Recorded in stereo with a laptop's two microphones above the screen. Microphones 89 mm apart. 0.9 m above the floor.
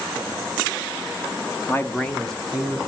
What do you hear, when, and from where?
1.7 s a man speaking: 30° left (ahead or behind), 1.2 m; by 2.8 s 5° right (ahead or behind), 2.5 m